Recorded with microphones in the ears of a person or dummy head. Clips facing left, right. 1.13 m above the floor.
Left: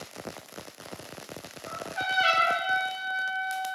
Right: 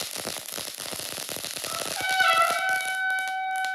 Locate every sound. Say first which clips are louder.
1.6 s a trumpet: right 2 dB; 25° left (ahead or behind), 0.7 m